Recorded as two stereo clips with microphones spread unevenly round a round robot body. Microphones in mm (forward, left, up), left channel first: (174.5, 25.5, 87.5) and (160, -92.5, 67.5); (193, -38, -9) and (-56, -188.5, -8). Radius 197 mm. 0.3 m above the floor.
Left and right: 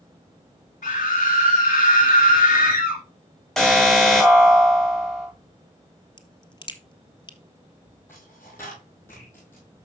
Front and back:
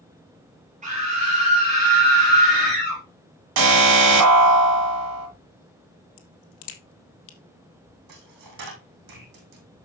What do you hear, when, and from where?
0.8 s a scream: 135° left, 5 m
3.6 s an alarm: 175° left, 2 m
6.2 s a crack: 25° left, 2 m
8.1 s a dropped coin: 165° left, 3 m